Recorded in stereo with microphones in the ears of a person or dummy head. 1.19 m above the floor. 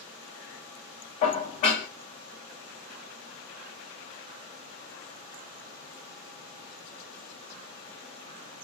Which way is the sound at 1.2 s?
40° left (ahead or behind).